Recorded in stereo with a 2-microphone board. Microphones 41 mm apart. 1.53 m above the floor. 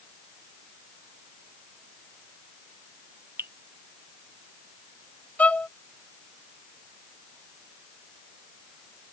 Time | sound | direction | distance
3.4 | dripping | 65° right (ahead or behind) | ?
5.4 | a violin | 35° left (ahead or behind) | ?